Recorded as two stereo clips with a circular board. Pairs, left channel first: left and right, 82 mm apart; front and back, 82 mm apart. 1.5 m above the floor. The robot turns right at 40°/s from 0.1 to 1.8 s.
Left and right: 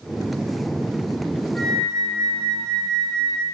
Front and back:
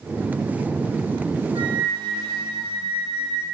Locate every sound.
1.6 s a flute: 165° left, 3.5 m; by 3.5 s 175° left, 3.5 m